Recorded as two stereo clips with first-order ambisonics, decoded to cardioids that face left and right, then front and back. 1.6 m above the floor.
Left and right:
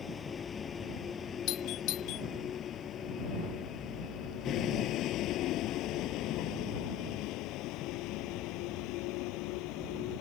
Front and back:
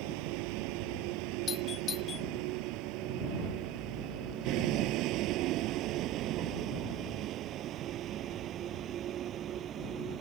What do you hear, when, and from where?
0.0 s a vehicle: 165° left; by 10.2 s 115° left
1.5 s a doorbell: 60° left